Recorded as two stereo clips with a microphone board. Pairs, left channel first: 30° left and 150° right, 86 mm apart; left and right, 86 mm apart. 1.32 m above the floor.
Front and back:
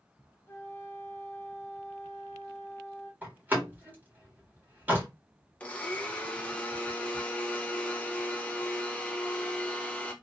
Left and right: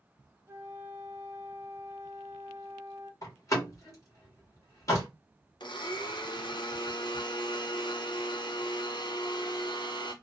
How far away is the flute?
About 0.6 m.